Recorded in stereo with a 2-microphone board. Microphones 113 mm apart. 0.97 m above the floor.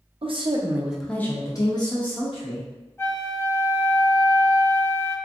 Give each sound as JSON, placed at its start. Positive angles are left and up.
{"t": 0.2, "sound": "a woman speaking", "side_deg": -55, "distance_m": 0.6}
{"t": 3.0, "sound": "a flute", "side_deg": 20, "distance_m": 0.6}